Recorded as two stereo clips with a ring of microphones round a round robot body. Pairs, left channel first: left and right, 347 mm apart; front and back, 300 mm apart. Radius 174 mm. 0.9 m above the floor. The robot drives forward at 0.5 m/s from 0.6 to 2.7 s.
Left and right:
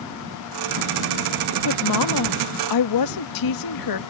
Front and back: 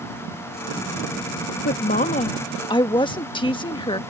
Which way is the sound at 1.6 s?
55° left.